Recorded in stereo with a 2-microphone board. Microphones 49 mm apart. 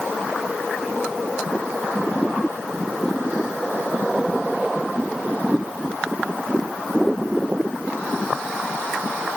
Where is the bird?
No bird in this recording.